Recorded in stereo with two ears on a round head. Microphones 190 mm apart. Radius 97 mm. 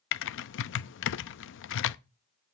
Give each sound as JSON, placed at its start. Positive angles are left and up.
{"t": 0.1, "sound": "typing on a keyboard", "side_deg": 60, "distance_m": 0.5}